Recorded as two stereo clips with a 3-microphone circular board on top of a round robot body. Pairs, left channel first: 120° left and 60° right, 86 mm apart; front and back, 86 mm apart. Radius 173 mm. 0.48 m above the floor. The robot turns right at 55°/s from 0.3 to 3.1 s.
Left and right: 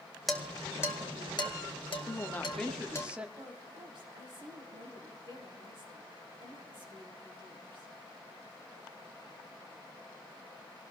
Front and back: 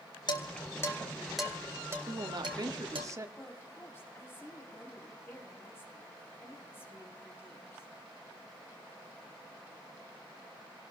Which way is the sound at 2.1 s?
170° left.